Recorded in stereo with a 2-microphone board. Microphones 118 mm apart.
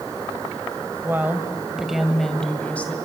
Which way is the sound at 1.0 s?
20° right (ahead or behind).